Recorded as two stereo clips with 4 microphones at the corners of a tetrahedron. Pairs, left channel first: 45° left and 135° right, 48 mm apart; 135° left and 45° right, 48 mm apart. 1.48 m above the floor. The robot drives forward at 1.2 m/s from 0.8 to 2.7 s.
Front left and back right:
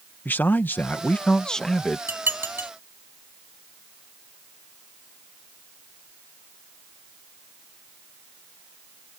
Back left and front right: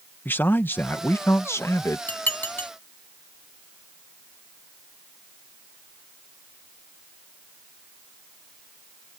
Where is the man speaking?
90° left; by 2.0 s 130° left.